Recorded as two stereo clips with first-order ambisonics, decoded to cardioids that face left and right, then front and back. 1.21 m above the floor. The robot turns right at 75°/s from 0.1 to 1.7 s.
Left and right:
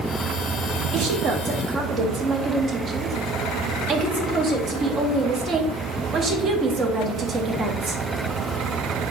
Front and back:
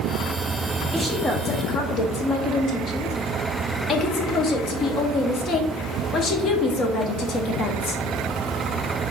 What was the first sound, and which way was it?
A woman speaking, 100° right.